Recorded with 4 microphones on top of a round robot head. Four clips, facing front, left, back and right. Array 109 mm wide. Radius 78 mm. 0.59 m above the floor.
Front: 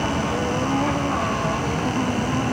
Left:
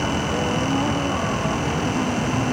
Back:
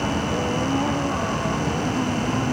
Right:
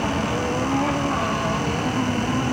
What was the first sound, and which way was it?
Only background noise.